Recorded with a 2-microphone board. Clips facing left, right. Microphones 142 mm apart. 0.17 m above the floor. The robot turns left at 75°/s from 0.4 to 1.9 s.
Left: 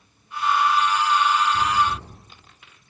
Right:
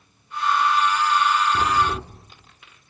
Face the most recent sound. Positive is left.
turn(degrees=-80)